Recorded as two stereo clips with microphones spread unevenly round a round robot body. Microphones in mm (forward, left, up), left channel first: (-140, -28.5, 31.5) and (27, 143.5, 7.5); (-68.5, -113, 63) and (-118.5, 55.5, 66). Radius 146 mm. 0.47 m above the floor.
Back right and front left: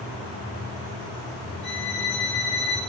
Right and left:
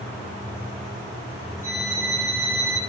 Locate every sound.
1.6 s a violin: 115° right, 8 m